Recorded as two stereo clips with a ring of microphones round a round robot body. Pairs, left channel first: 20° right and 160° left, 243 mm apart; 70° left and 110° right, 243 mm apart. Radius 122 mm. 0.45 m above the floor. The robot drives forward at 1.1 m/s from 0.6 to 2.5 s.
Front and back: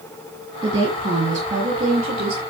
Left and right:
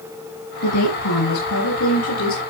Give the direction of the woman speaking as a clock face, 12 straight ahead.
9 o'clock.